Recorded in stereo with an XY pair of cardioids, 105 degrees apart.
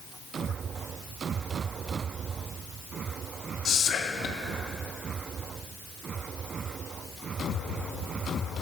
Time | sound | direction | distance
3.6 | whispering | 55° left | 0.5 m